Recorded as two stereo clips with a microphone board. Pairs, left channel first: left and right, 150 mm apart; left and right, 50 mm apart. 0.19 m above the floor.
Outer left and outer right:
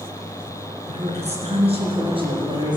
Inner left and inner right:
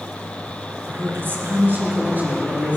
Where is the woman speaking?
45° right (ahead or behind), 2.5 m; by 2.8 s 30° right (ahead or behind), 4 m.